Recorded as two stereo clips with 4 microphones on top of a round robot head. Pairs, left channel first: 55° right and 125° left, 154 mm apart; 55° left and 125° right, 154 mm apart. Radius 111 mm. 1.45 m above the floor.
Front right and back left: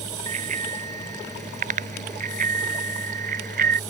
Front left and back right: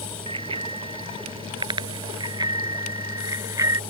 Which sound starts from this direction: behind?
A bicycle bell, at 0.3 s.